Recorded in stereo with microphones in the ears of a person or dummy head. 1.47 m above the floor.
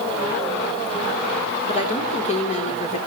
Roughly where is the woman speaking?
Left.